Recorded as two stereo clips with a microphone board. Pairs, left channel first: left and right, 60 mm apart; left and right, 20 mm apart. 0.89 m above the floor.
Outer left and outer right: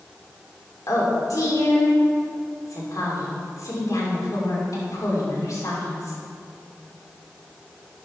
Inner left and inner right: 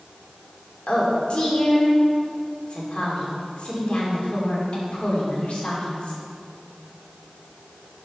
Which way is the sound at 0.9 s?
60° left (ahead or behind).